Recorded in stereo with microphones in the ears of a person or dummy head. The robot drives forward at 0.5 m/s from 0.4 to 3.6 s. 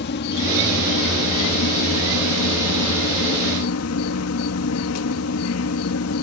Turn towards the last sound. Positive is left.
turn(degrees=75)  # may be behind; listen again after turning